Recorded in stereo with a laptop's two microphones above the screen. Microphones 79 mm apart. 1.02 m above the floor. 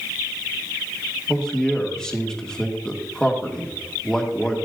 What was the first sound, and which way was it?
A man speaking, 10° left (ahead or behind).